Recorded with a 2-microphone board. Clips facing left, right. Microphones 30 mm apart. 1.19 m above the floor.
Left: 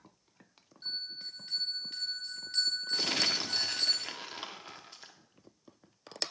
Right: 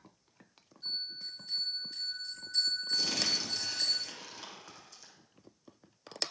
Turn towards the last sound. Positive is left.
turn(degrees=50)  # may be behind; listen again after turning